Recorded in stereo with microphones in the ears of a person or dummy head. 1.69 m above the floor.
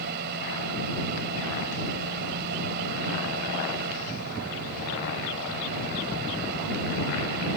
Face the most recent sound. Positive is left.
turn(degrees=-55)  # may be behind; listen again after turning